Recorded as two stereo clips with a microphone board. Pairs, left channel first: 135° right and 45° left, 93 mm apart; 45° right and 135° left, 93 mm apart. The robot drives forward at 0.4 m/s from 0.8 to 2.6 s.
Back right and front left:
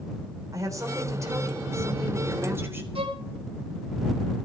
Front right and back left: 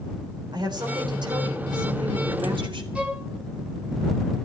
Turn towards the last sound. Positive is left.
turn(degrees=60)